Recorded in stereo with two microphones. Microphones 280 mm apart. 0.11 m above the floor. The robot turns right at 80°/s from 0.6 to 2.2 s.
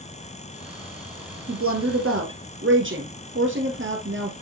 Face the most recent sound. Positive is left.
turn(degrees=-60)